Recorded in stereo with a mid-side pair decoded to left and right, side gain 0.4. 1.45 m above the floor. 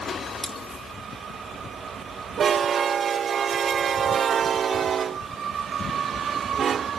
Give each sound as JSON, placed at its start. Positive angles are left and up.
{"t": 0.4, "sound": "cutlery clinking", "azimuth_deg": -10, "distance_m": 4.5}